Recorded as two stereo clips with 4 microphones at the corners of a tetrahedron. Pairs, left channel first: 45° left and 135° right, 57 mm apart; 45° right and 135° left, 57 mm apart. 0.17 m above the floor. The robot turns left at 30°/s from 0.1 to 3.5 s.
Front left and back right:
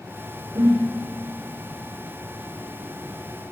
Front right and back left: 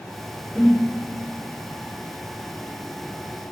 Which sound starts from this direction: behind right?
A whoosh, at 0.6 s.